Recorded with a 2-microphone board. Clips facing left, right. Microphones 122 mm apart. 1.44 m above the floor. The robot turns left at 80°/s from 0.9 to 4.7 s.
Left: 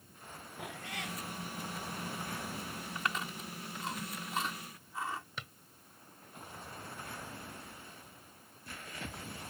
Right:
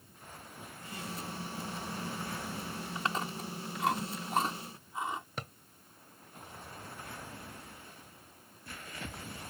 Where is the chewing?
20° right (ahead or behind).